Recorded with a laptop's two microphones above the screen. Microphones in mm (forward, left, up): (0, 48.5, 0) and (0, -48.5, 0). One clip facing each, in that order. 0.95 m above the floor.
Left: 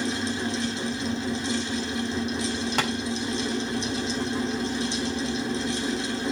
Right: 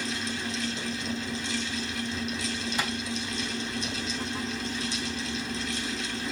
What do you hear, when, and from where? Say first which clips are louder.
0.0 s a fan: left 6 dB; 30° left (ahead or behind), 2.5 m
2.8 s tapping: left 5 dB; 75° left (ahead or behind), 2.5 m